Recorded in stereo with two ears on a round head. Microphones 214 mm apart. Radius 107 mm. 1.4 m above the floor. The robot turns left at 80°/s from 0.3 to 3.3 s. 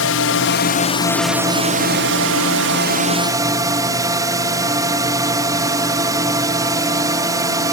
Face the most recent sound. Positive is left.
turn(degrees=-165)